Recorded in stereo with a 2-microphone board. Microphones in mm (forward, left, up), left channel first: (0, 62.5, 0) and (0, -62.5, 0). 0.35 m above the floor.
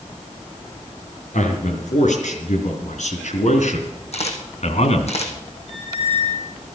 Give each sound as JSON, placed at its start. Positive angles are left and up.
{"t": 1.3, "sound": "a man speaking", "side_deg": 80, "distance_m": 4.5}
{"t": 4.1, "sound": "a camera shutter", "side_deg": 60, "distance_m": 3.0}
{"t": 5.7, "sound": "a squeak", "side_deg": 50, "distance_m": 7.5}